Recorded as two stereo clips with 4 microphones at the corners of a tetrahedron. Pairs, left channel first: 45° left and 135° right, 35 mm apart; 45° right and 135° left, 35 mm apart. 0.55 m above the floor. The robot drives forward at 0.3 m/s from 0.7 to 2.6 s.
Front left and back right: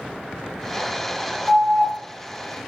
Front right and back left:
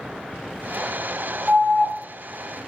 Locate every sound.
1.5 s an alarm: 60° left, 1.3 m; by 1.9 s 70° left, 1.2 m